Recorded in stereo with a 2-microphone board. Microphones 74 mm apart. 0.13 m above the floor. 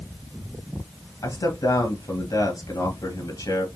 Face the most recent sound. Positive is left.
turn(degrees=55)  # may be behind; listen again after turning